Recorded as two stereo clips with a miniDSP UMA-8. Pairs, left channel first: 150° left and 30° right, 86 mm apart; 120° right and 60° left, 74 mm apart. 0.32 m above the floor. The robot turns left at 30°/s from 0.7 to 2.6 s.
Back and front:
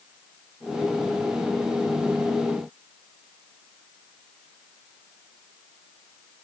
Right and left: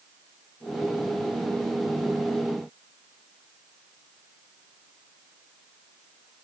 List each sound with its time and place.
Only background noise.